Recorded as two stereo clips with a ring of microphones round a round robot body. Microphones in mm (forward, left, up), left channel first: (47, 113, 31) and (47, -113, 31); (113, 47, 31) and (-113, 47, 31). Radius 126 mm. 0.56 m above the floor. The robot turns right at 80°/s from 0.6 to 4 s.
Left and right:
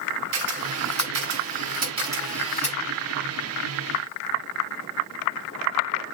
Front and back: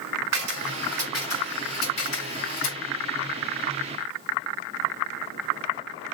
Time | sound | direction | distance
0.3 | a camera shutter | 135° right | 3.5 m